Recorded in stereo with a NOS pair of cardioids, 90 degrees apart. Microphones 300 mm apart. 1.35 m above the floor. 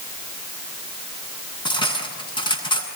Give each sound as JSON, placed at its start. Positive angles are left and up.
{"t": 1.6, "sound": "cutlery clinking", "azimuth_deg": 15, "distance_m": 8.0}